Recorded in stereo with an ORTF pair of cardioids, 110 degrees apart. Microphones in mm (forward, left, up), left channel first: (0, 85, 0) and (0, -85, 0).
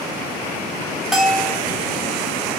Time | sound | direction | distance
1.1 | a bell | straight ahead | 0.5 m